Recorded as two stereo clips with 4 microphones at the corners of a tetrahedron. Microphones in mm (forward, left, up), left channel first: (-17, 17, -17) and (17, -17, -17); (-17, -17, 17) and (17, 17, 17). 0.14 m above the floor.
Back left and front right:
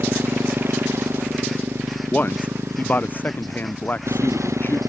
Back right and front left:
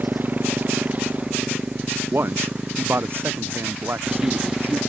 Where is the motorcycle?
5° right; by 4.9 s 35° right.